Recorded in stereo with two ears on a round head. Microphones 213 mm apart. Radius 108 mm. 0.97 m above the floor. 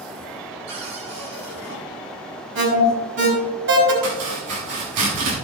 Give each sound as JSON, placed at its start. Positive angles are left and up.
{"t": 0.7, "sound": "a cupboard door", "side_deg": -85, "distance_m": 6.5}
{"t": 2.5, "sound": "an alarm", "side_deg": -60, "distance_m": 4.5}
{"t": 4.0, "sound": "chopping", "side_deg": -85, "distance_m": 6.0}